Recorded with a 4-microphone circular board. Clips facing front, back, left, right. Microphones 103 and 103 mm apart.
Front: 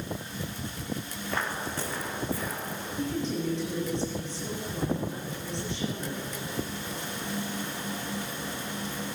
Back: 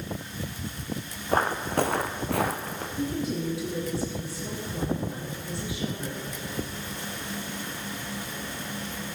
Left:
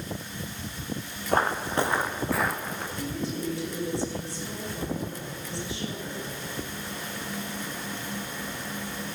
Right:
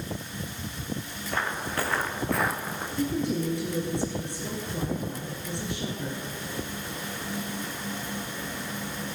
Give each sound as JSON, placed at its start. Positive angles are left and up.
{"t": 1.3, "sound": "footsteps", "azimuth_deg": 135, "distance_m": 0.8}
{"t": 3.0, "sound": "a woman speaking", "azimuth_deg": -100, "distance_m": 3.0}